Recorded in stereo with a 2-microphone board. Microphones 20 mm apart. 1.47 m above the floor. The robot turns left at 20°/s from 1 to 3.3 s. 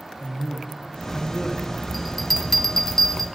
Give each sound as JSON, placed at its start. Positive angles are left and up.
{"t": 0.2, "sound": "a man speaking", "side_deg": 45, "distance_m": 1.4}
{"t": 1.9, "sound": "a bell", "side_deg": -5, "distance_m": 0.6}